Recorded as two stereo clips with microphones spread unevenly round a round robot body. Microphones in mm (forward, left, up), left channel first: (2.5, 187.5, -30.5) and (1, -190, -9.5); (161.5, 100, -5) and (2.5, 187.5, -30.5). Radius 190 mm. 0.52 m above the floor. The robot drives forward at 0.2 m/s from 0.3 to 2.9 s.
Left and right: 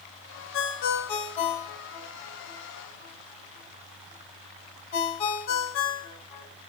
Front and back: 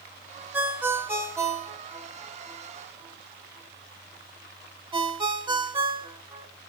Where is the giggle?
I don't hear a giggle.